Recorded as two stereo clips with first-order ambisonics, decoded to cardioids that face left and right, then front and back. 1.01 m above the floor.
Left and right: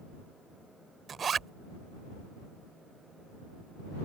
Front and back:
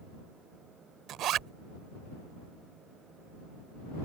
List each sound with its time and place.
1.1 s a zipper: 150° right